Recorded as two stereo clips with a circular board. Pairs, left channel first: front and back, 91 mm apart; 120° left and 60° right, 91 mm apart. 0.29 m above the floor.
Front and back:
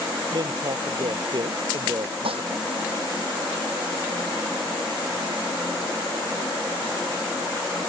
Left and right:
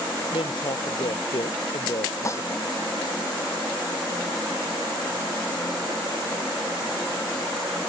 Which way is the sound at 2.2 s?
175° left.